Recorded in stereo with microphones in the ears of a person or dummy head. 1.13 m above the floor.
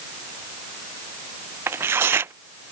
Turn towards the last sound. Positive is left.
turn(degrees=-15)  # may be behind; listen again after turning